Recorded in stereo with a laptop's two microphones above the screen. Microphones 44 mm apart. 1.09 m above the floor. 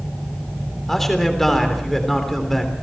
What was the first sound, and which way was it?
A man speaking, 5° left (ahead or behind).